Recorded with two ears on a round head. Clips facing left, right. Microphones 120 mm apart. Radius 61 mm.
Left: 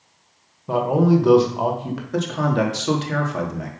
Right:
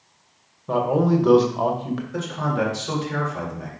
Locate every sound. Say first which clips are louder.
0.7 s a man speaking: left 2 dB; 5° left (ahead or behind), 1.4 m
2.1 s a man speaking: left 6 dB; 75° left (ahead or behind), 2.5 m